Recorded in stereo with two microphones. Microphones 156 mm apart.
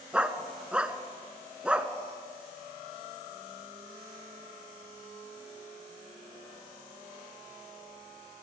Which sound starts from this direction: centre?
A dog barking, at 0.1 s.